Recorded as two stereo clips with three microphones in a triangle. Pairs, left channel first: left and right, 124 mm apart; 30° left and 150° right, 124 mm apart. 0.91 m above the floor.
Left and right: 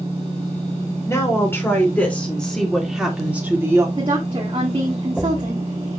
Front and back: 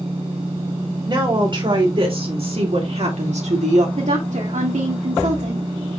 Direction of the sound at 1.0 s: 155° left.